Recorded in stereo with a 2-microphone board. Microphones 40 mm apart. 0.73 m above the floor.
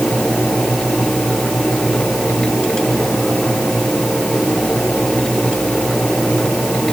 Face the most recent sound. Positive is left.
No sound to turn to.